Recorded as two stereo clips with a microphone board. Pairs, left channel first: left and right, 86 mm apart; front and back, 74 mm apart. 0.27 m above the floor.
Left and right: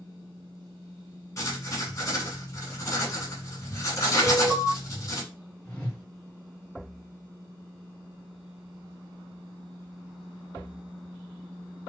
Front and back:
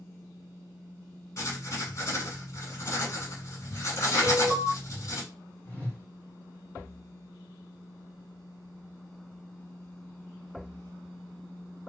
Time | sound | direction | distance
1.4 | writing | 40° left | 1.1 m
4.2 | an alarm | 175° right | 1.5 m
5.7 | a whoosh | 35° left | 1.4 m